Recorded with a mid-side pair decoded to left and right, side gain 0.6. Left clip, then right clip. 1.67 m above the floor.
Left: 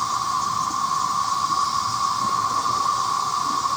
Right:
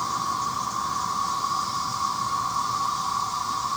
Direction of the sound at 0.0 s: 25° left.